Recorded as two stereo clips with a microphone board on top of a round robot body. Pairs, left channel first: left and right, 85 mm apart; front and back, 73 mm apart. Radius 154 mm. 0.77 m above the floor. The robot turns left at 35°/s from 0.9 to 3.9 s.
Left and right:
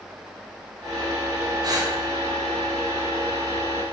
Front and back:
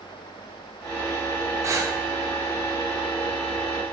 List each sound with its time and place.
1.6 s breathing: 130° right, 2 m; by 2.0 s 140° right, 2 m